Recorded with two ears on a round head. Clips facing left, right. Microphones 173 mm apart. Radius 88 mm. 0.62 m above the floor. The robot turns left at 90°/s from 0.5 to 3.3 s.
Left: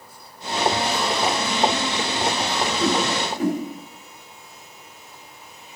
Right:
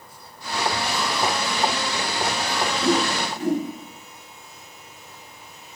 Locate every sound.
2.8 s a whoosh: 65° left (ahead or behind), 3.5 m